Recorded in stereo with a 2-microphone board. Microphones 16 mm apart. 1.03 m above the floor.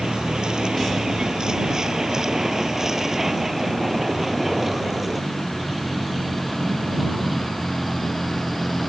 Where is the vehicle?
65° right (ahead or behind); by 8.9 s centre (ahead or behind).